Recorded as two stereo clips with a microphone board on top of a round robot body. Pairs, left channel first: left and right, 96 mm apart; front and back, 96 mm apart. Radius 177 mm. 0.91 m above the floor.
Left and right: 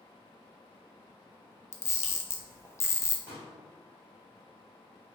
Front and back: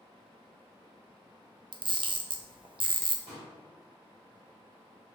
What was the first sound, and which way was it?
A camera shutter, 150° left.